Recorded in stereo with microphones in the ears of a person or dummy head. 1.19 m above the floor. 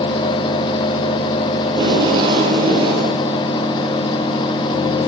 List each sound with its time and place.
1.7 s tape being pulled: 30° right (ahead or behind), 6.5 m